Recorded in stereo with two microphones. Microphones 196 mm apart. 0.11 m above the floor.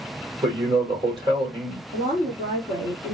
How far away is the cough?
I don't hear a cough.